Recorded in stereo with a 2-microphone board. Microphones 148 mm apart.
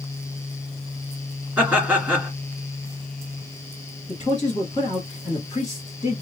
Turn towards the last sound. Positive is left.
turn(degrees=30)  # may be behind; listen again after turning